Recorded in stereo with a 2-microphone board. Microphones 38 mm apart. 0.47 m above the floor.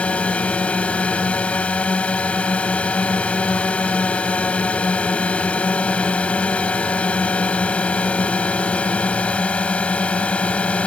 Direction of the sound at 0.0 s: 30° left (ahead or behind).